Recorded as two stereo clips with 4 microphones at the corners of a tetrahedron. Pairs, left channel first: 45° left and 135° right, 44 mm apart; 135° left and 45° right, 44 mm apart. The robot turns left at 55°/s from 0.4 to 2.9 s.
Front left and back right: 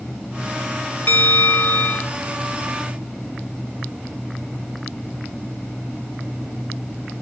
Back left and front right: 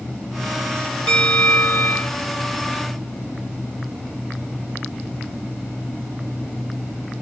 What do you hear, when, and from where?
1.1 s a bell: 75° left, 1.1 m; by 2.1 s 15° left, 1.1 m